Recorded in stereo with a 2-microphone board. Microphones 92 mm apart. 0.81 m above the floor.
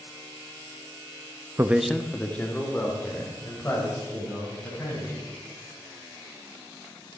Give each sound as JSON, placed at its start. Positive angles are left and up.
{"t": 1.6, "sound": "a man speaking", "side_deg": -30, "distance_m": 0.5}